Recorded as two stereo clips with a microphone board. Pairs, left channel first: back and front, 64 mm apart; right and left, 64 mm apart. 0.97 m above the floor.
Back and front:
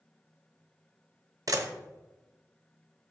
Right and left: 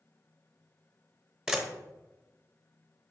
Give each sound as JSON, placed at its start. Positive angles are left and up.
{"t": 1.5, "sound": "a camera shutter", "azimuth_deg": 10, "distance_m": 0.8}